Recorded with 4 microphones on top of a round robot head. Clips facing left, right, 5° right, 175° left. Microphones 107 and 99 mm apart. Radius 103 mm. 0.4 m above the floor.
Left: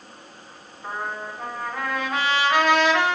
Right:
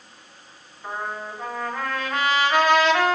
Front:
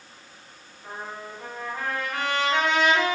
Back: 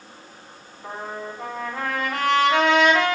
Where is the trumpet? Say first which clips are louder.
Even, back 5 dB; straight behind, 5 m.